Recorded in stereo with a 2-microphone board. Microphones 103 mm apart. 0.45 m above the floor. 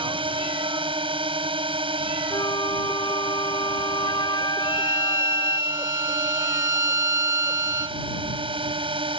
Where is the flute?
45° left (ahead or behind).